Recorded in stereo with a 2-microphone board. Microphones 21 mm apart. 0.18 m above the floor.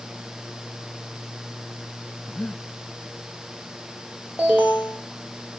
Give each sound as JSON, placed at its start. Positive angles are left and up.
{"t": 2.3, "sound": "breathing", "side_deg": 35, "distance_m": 0.9}
{"t": 4.4, "sound": "an alarm", "side_deg": -50, "distance_m": 4.0}